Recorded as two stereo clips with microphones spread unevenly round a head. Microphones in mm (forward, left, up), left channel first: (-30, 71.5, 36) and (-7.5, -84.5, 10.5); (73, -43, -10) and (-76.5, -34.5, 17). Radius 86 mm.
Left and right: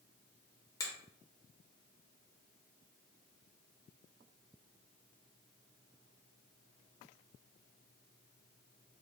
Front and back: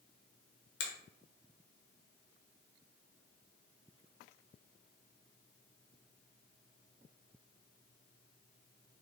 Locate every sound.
0.8 s a finger snap: 30° left, 0.8 m